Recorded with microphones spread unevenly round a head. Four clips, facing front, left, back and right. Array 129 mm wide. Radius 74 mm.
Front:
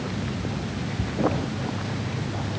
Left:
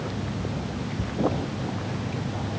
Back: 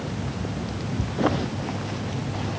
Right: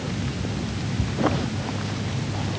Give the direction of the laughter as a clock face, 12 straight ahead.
I don't hear laughter.